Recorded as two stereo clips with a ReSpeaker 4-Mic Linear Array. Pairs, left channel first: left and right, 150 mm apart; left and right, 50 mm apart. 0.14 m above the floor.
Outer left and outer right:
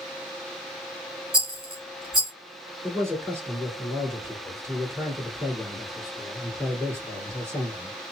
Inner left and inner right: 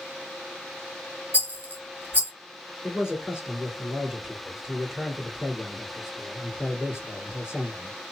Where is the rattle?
35° right (ahead or behind), 1.8 m.